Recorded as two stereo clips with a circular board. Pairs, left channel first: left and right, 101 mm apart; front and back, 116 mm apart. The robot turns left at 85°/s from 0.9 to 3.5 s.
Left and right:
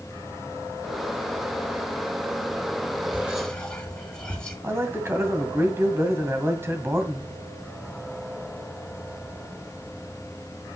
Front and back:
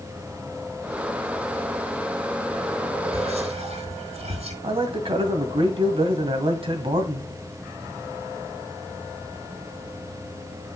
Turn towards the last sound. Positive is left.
turn(degrees=-150)